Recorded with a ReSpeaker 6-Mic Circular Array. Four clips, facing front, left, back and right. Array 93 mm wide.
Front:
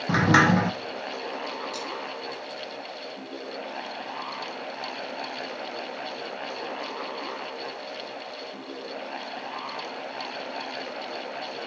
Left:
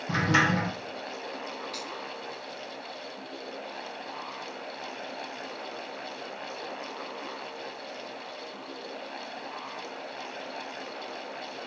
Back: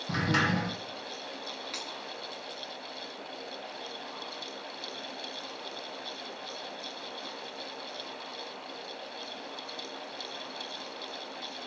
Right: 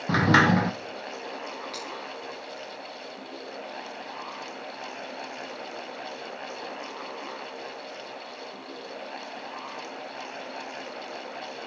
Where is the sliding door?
50° right, 0.8 m.